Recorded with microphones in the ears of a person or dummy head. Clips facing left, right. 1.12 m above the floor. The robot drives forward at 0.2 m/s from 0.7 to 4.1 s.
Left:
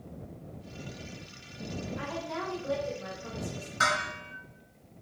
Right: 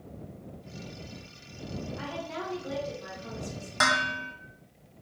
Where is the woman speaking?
35° left (ahead or behind), 2.5 m; by 3.7 s 30° left (ahead or behind), 2.5 m.